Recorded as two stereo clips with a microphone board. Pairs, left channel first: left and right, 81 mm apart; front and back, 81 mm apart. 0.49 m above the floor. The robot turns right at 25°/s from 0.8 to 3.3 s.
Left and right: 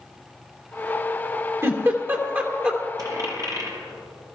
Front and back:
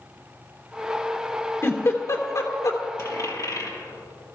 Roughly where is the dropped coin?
Ahead right.